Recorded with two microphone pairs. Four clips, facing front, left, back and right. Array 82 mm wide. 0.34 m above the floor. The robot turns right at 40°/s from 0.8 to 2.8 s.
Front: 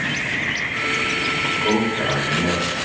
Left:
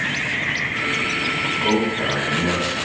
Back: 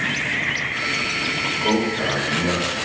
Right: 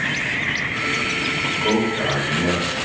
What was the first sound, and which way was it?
A man speaking, 135° right.